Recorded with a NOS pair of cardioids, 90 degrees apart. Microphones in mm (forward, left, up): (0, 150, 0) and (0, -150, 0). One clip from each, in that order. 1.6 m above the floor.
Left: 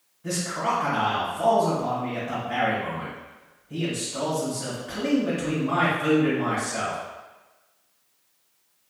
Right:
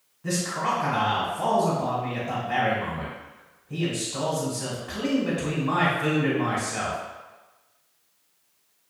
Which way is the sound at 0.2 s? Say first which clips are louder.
Even; 20° right.